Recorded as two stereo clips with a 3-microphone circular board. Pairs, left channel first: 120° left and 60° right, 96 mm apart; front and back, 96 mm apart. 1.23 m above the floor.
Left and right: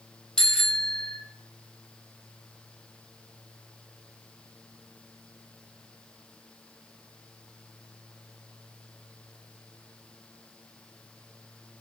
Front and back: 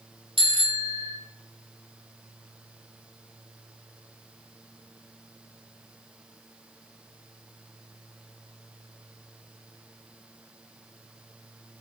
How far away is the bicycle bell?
About 4.5 m.